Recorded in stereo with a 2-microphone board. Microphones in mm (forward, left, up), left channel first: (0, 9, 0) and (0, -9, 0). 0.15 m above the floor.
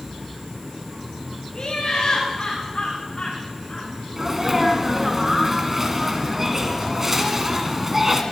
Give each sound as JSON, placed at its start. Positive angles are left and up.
{"t": 1.5, "sound": "laughter", "side_deg": 50, "distance_m": 9.5}
{"t": 4.2, "sound": "a sneeze", "side_deg": -20, "distance_m": 1.8}